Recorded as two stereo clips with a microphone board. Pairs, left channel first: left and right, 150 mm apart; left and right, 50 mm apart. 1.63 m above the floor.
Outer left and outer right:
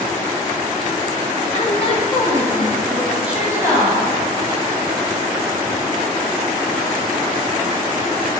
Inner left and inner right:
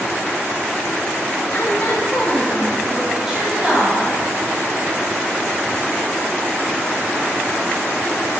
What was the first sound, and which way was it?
A woman speaking, 50° left (ahead or behind).